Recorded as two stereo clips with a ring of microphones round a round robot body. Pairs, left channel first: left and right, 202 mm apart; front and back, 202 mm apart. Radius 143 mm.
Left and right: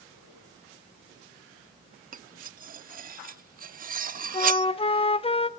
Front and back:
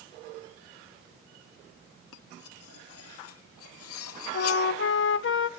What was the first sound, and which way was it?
Cutlery clinking, 35° right.